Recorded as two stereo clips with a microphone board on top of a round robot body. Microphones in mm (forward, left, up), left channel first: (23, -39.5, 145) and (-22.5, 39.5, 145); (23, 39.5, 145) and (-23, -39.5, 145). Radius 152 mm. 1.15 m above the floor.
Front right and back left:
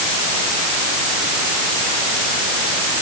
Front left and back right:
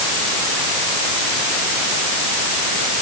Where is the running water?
No running water in this recording.